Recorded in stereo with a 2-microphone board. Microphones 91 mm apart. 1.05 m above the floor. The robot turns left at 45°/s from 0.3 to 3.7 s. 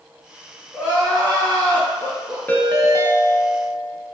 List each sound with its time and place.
0.7 s crying: 160° right, 1.4 m; by 2.4 s 125° left, 1.4 m
2.5 s a ringtone: 155° left, 0.6 m; by 4.2 s 100° left, 0.6 m